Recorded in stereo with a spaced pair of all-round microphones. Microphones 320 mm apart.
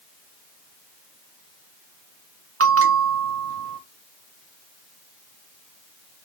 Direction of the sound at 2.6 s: 45° right (ahead or behind).